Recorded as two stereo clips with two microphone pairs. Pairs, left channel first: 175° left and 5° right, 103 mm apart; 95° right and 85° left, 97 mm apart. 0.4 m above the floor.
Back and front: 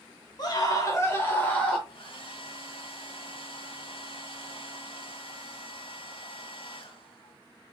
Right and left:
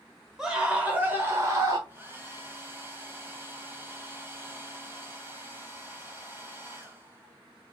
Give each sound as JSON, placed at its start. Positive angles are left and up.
{"t": 0.4, "sound": "a scream", "azimuth_deg": 165, "distance_m": 1.3}
{"t": 1.9, "sound": "a hair dryer", "azimuth_deg": 150, "distance_m": 0.9}